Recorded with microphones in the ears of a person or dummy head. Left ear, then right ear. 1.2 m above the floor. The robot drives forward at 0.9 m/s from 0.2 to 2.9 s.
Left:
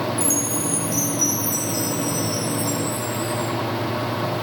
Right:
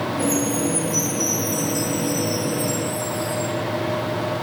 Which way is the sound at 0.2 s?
40° left (ahead or behind).